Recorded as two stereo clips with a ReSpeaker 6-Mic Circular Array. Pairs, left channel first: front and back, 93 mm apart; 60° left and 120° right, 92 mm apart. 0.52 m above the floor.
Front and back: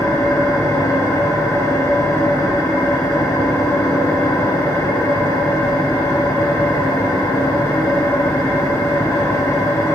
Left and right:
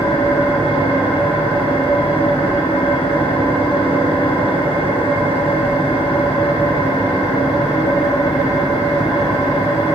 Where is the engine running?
55° left, 4 m.